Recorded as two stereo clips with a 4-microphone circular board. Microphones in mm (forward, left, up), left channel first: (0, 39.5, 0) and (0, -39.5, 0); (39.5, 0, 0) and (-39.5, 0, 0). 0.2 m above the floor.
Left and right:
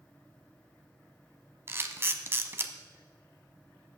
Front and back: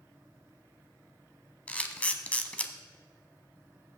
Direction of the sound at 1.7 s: 60° right.